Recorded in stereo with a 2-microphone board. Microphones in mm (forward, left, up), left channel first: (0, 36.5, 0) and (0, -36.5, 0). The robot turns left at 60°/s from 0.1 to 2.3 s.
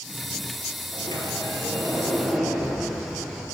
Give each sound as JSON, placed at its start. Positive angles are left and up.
{"t": 0.9, "sound": "a sliding door", "azimuth_deg": 85, "distance_m": 5.5}